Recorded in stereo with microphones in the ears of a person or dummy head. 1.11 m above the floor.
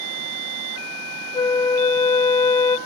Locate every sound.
1.3 s a flute: 5° left (ahead or behind), 0.5 m